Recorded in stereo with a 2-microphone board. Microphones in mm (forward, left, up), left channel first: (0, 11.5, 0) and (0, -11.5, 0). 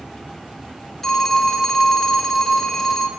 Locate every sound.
1.0 s a phone ringing: 15° left (ahead or behind), 0.9 m